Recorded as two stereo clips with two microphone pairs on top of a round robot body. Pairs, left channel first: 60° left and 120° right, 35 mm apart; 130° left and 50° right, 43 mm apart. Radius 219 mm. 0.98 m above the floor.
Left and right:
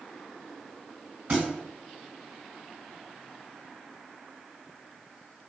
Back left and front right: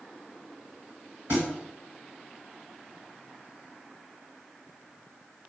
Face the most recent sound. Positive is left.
turn(degrees=-55)